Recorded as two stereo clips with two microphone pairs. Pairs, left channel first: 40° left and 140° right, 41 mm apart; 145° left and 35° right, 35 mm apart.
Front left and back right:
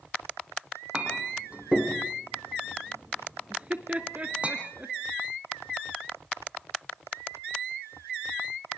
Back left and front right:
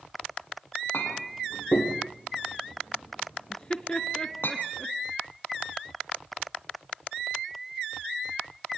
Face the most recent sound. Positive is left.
turn(degrees=-170)